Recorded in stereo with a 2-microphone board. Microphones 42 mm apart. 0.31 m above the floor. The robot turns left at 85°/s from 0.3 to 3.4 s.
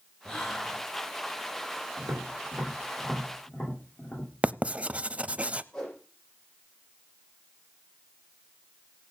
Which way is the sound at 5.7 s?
15° left (ahead or behind).